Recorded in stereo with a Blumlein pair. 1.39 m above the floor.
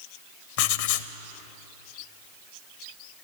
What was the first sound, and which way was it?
Writing, 50° left.